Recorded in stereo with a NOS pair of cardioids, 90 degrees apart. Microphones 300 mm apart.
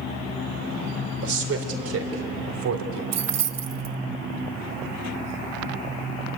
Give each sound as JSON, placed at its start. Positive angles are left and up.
{"t": 1.2, "sound": "a man speaking", "azimuth_deg": -50, "distance_m": 4.0}
{"t": 3.1, "sound": "keys jangling", "azimuth_deg": -60, "distance_m": 0.9}